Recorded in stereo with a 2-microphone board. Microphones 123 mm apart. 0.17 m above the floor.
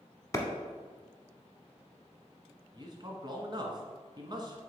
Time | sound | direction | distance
0.3 | a clap | 25° left (ahead or behind) | 0.9 m
2.7 | a man speaking | 40° right (ahead or behind) | 1.2 m